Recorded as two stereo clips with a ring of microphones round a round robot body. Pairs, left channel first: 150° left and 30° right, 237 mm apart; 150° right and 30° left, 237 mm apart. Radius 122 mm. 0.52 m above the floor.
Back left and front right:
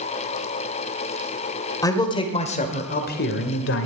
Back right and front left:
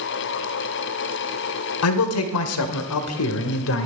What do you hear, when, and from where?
1.8 s a man speaking: 135° right, 1.8 m; by 3.9 s straight behind, 1.8 m